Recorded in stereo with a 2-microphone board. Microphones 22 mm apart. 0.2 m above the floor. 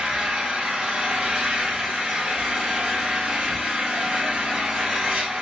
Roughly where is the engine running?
Right.